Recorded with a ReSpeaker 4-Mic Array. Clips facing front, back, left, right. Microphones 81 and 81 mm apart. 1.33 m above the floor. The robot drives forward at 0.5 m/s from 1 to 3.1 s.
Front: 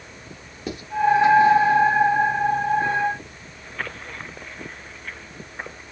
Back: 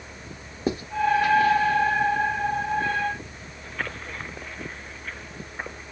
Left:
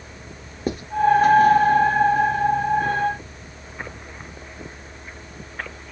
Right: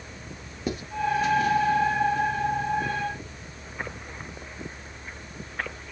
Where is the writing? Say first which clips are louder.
Back 6 dB, left 4 dB; 130° left, 0.9 m.